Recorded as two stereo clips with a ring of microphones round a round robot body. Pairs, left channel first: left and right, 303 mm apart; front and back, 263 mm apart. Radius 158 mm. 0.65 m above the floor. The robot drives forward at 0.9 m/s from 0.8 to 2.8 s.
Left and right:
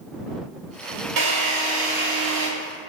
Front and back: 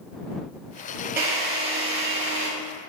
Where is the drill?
100° right, 2.5 m; by 2.5 s 125° right, 3 m.